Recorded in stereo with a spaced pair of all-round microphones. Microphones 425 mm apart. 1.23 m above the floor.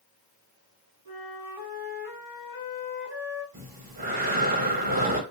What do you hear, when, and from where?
1.1 s a flute: 55° left (ahead or behind), 1.1 m
3.5 s breathing: 55° right (ahead or behind), 0.9 m